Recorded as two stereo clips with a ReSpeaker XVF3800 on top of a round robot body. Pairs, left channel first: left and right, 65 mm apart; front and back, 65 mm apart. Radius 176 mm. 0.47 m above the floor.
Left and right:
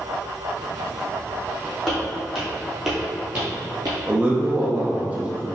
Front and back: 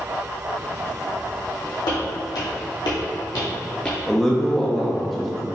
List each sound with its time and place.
1.9 s footsteps: 5° left, 1.7 m; by 4.0 s 85° right, 0.5 m
4.1 s a man speaking: 85° right, 0.8 m